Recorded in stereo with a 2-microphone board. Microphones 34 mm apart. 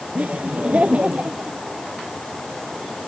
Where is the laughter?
40° right (ahead or behind); by 1.6 s 35° right (ahead or behind).